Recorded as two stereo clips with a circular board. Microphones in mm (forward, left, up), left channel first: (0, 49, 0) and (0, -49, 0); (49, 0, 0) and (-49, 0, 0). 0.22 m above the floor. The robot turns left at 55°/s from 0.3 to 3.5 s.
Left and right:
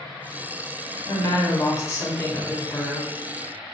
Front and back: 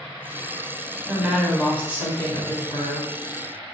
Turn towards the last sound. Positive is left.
turn(degrees=-25)